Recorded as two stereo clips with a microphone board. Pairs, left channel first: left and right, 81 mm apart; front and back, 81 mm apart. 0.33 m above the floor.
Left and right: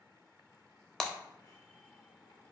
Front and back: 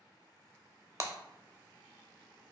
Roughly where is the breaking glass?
Behind.